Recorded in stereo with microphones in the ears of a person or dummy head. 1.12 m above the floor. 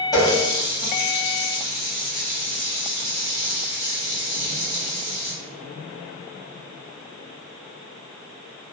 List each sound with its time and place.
0.1 s a running tap: 20° left (ahead or behind), 1.1 m